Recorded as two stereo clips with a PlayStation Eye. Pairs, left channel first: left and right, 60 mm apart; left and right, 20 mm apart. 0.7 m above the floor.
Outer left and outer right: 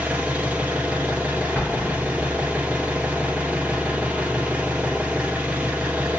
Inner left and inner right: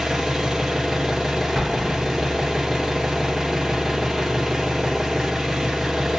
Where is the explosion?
15° left (ahead or behind), 1.2 m.